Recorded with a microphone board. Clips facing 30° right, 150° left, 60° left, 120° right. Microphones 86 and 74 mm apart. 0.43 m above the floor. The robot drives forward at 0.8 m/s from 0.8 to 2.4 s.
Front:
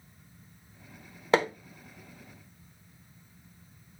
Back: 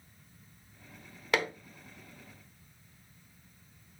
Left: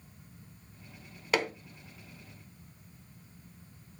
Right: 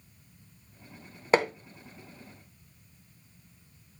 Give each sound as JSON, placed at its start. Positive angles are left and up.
{"t": 1.3, "sound": "hammering", "azimuth_deg": -75, "distance_m": 0.9}